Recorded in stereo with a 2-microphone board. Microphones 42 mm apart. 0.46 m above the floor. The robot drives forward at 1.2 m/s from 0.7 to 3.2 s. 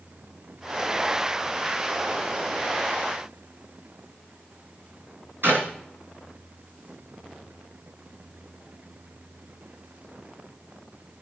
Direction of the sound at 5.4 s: 70° right (ahead or behind).